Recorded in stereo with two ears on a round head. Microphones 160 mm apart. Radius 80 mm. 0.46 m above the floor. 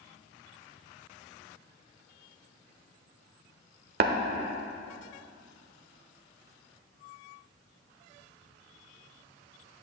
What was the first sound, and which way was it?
Tapping, 55° right (ahead or behind).